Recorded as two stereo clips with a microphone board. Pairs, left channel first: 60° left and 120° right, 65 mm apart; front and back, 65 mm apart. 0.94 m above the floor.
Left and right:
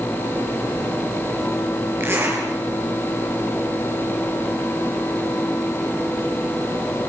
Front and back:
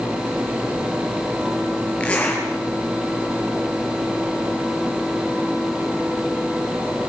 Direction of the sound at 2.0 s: 70° right.